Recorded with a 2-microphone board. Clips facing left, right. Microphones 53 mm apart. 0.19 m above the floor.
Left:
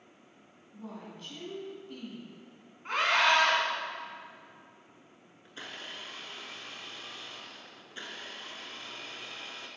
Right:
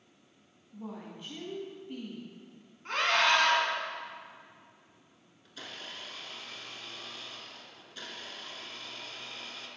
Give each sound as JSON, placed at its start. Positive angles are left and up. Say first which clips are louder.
{"t": 0.7, "sound": "a woman speaking", "louder": "right 2 dB", "side_deg": -15, "distance_m": 1.7}
{"t": 2.9, "sound": "a scream", "louder": "left 1 dB", "side_deg": 15, "distance_m": 1.8}
{"t": 5.5, "sound": "a blender", "louder": "left 1 dB", "side_deg": 30, "distance_m": 0.9}